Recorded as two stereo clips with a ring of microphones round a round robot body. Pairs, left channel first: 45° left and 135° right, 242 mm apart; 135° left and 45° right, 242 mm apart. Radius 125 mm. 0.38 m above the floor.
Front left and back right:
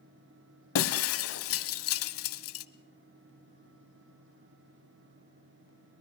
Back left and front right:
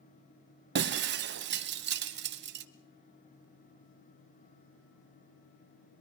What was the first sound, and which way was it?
Breaking glass, 5° left.